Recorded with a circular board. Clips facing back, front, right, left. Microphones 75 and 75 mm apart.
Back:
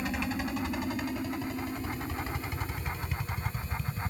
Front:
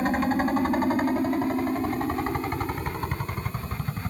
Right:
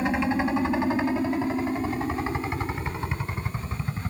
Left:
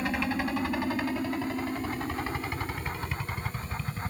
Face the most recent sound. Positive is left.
turn(degrees=-25)